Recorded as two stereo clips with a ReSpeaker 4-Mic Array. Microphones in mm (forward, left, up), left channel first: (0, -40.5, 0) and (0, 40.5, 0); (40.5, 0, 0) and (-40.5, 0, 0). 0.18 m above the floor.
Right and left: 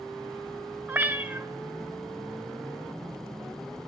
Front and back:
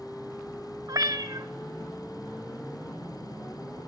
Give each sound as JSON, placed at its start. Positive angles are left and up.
{"t": 0.9, "sound": "a cat meowing", "azimuth_deg": 155, "distance_m": 0.5}